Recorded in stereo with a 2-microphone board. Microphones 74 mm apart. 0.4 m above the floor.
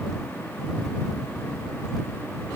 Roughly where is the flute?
No flute in this recording.